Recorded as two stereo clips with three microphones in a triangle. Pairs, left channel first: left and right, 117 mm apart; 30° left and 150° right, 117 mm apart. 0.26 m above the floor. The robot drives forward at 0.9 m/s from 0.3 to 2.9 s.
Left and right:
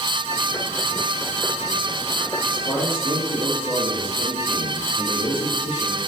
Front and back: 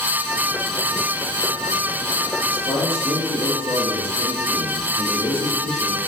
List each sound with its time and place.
2.5 s a man speaking: 50° left, 5.5 m; by 6.0 s 55° left, 5 m